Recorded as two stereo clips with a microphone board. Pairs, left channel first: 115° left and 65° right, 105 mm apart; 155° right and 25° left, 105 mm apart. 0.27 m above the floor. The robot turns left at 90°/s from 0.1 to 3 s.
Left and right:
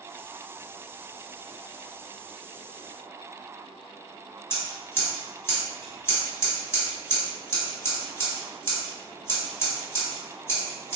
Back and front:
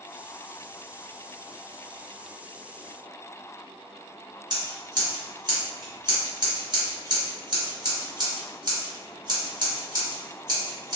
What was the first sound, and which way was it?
Scissors, 55° left.